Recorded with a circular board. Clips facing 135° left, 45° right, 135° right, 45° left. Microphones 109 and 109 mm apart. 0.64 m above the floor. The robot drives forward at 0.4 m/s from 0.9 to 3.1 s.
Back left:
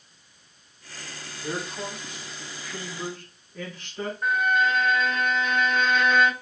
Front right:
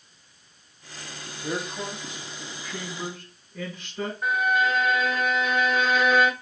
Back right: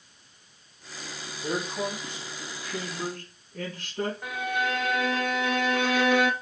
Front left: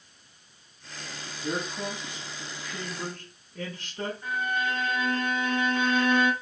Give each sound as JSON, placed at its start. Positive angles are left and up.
{"t": 1.4, "sound": "a man speaking", "azimuth_deg": -120, "distance_m": 3.0}
{"t": 4.2, "sound": "a violin", "azimuth_deg": -130, "distance_m": 0.5}